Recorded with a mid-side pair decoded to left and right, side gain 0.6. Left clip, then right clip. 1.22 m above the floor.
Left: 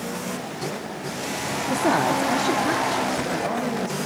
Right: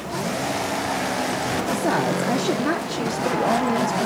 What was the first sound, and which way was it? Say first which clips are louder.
A woman speaking: left 3 dB; 20° left.